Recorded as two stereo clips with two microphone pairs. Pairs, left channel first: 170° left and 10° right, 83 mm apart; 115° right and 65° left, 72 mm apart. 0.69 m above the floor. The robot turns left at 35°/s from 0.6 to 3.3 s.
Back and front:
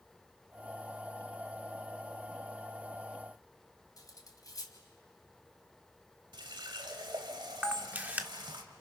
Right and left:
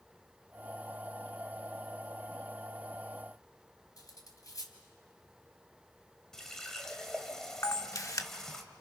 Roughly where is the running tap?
Ahead right.